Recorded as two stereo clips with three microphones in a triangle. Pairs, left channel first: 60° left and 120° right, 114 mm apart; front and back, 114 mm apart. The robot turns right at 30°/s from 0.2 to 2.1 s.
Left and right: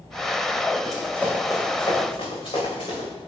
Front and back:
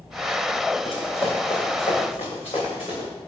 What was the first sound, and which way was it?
Running footsteps, 30° right.